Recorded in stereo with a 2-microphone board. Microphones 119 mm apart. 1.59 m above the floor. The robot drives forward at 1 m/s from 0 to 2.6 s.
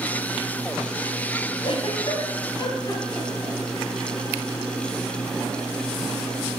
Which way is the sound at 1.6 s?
45° left (ahead or behind).